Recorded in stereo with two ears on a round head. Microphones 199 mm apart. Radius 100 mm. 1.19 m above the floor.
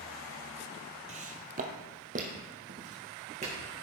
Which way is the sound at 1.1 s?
35° right (ahead or behind).